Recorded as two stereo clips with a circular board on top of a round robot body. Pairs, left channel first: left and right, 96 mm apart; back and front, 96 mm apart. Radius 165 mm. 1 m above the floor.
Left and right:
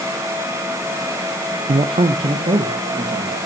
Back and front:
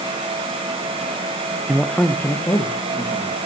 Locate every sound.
1.7 s a man speaking: 80° right, 0.5 m; by 3.4 s 130° right, 1.9 m